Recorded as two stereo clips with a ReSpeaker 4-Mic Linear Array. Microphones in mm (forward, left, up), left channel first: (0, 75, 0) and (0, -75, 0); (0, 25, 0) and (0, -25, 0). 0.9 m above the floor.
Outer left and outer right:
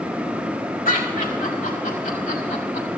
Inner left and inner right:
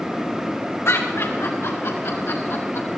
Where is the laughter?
80° left, 3.5 m.